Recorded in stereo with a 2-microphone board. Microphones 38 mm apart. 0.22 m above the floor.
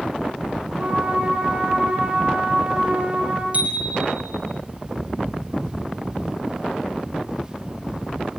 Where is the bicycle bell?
40° right (ahead or behind), 5.5 m.